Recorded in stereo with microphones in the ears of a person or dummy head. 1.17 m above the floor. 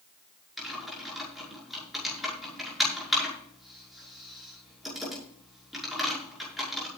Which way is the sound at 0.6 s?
Centre (ahead or behind).